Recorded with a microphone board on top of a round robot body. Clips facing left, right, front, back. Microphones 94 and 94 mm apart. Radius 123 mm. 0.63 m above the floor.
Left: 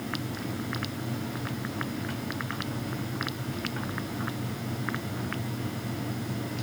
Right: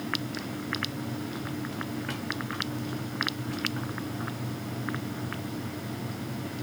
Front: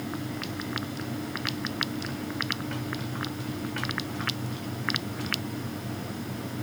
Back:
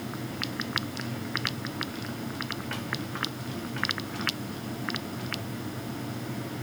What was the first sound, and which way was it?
Only background noise.